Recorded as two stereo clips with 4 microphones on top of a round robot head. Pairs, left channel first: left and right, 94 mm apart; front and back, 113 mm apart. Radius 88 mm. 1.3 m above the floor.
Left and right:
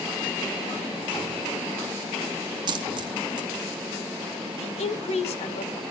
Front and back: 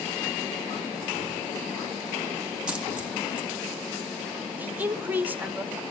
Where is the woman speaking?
105° left, 1.7 m.